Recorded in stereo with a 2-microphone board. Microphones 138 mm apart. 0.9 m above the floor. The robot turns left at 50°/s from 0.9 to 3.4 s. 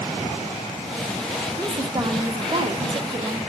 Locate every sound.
1.6 s a woman speaking: 35° right, 0.6 m; by 3.4 s 125° right, 0.6 m